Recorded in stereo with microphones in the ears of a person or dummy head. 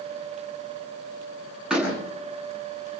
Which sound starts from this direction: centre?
A door slam, at 1.7 s.